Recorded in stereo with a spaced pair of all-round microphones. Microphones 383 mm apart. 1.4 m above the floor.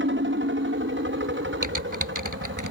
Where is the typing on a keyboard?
50° right (ahead or behind).